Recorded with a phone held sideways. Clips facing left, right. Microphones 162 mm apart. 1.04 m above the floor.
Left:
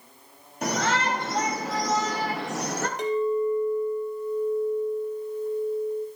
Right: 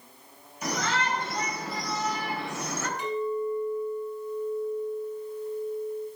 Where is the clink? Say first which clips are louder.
Left 6 dB; 75° left (ahead or behind), 3 m.